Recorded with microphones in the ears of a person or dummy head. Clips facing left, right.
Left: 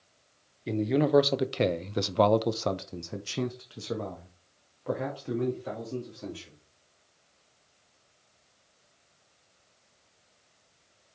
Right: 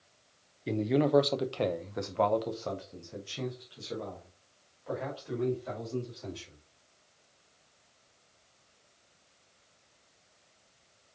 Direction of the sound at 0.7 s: Centre (ahead or behind).